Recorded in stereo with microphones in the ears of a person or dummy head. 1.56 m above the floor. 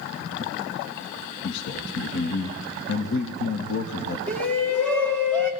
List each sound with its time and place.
1.4 s a man speaking: 65° left (ahead or behind), 1.8 m
4.3 s a shout: 5° left (ahead or behind), 3 m